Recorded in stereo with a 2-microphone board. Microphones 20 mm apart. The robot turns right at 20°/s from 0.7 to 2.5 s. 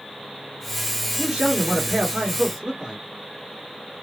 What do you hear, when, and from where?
1.2 s a man speaking: 30° right (ahead or behind), 1.5 m; by 3.0 s 20° right (ahead or behind), 1.5 m